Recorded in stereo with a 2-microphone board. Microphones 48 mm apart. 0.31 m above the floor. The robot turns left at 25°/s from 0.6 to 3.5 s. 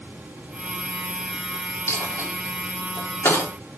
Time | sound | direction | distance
1.9 | a dropped coin | 70° left (ahead or behind) | 6 m